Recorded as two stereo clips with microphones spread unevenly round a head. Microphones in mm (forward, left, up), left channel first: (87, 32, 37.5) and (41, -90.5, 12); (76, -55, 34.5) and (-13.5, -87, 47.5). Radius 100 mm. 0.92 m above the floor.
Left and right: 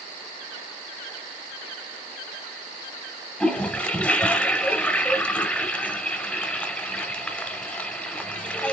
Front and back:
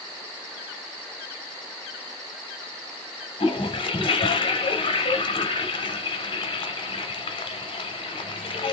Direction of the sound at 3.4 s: 5° left.